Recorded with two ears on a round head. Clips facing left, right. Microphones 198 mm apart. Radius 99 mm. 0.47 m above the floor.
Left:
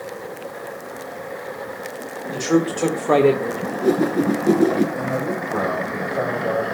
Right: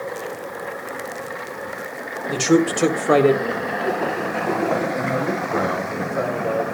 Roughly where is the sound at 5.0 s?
Centre.